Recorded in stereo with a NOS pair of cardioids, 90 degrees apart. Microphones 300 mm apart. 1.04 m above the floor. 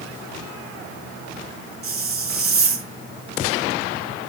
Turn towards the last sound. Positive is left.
turn(degrees=-55)